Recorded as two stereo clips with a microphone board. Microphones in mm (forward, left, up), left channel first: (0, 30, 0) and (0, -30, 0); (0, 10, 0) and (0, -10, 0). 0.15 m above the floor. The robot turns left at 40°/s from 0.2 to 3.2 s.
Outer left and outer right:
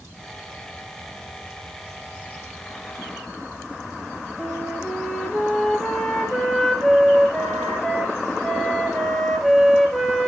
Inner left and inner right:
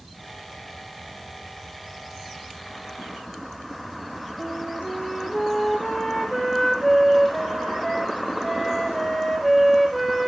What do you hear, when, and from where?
4.4 s a flute: 5° left (ahead or behind), 2.5 m